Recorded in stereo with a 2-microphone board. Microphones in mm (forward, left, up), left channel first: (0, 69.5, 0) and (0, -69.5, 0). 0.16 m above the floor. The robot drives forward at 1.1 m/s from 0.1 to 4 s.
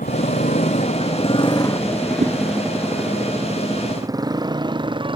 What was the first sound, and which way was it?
A motorcycle, 80° left.